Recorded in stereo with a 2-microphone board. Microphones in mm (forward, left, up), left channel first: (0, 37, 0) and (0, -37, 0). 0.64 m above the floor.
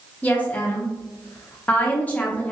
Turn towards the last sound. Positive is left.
turn(degrees=20)  # may be behind; listen again after turning